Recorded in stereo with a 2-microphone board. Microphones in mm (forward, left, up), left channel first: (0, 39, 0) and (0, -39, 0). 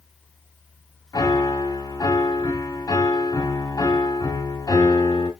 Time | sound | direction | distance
1.1 | a piano | 50° left (ahead or behind) | 2.5 m